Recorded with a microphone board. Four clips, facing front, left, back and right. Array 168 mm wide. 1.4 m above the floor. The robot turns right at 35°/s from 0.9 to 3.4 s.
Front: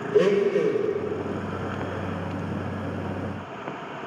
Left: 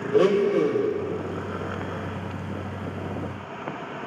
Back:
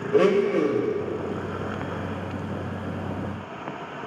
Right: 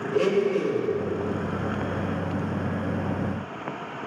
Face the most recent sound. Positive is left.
turn(degrees=-105)